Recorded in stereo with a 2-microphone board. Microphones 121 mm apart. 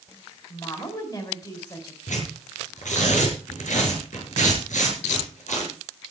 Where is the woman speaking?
35° left (ahead or behind), 3.5 m.